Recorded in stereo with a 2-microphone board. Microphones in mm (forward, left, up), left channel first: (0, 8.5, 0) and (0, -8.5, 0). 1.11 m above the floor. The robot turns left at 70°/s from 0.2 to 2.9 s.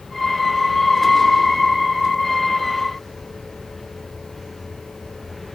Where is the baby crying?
I don't hear a baby crying.